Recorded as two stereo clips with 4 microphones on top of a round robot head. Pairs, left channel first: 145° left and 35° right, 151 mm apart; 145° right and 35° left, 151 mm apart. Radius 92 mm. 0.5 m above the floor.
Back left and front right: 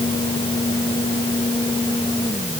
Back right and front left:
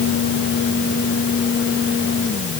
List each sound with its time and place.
Only background noise.